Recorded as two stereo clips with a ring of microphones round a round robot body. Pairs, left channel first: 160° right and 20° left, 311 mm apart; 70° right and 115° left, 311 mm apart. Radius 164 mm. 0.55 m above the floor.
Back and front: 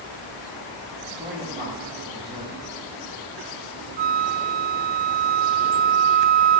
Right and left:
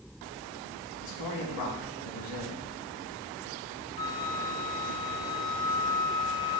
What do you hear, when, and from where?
1.0 s a man speaking: 45° right, 3.5 m
4.0 s a flute: 10° left, 0.5 m